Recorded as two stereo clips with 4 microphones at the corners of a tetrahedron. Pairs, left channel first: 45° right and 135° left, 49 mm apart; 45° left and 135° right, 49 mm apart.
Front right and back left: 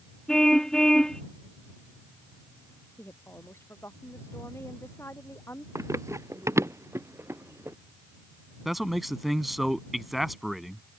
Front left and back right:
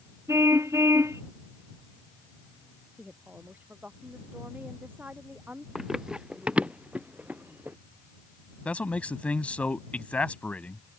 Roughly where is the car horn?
Behind right.